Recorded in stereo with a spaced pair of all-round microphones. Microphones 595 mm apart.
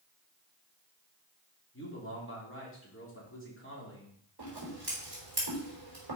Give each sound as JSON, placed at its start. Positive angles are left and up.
{"t": 1.7, "sound": "a man speaking", "side_deg": 20, "distance_m": 3.0}
{"t": 4.4, "sound": "scissors", "side_deg": -40, "distance_m": 4.5}